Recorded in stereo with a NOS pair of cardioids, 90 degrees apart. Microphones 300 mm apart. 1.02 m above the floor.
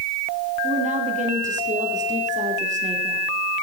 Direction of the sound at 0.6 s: 25° right.